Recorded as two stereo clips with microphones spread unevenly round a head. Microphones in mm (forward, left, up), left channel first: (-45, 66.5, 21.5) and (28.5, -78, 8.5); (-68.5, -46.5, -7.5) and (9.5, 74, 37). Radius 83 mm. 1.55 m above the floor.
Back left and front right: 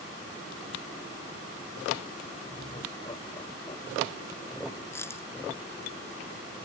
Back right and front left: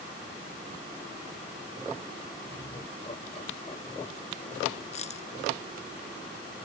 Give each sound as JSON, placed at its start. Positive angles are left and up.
{"t": 2.4, "sound": "laughter", "azimuth_deg": 180}
{"t": 4.9, "sound": "a dropped coin", "azimuth_deg": -170}